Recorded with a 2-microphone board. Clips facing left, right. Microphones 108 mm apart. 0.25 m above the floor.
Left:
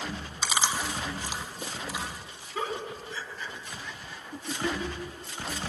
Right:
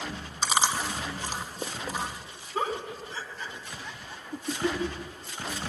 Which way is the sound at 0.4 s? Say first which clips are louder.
Right 3 dB; 40° right (ahead or behind).